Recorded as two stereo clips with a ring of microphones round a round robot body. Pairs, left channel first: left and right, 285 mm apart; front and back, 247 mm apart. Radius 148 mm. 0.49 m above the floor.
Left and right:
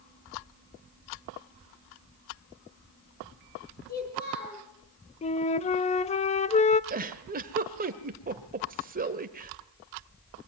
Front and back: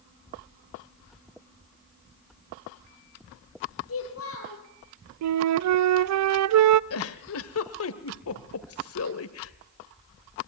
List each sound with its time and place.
3.9 s a child speaking: 30° left, 10 m
5.2 s a flute: 160° left, 0.6 m
6.9 s a giggle: 30° right, 1.6 m